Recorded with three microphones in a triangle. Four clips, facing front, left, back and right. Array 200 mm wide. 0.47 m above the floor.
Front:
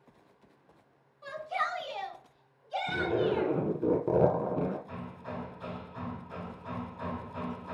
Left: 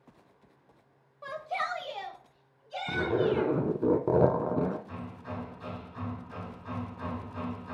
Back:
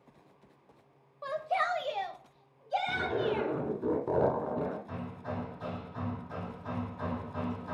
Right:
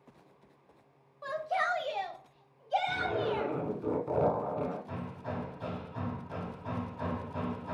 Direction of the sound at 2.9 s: 65° left.